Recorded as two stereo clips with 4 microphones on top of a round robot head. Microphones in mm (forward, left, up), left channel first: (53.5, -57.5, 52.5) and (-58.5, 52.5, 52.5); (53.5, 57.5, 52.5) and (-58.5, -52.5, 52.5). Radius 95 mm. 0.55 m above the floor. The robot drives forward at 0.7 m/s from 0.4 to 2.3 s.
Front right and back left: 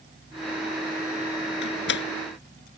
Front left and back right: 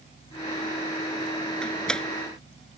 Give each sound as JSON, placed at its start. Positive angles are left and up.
{"t": 1.6, "sound": "a door slam", "azimuth_deg": -40}